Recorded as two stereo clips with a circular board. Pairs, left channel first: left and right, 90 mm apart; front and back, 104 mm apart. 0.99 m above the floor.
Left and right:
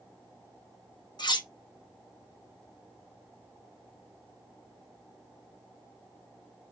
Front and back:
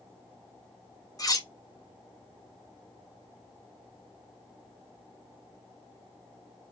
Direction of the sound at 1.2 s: 55° left.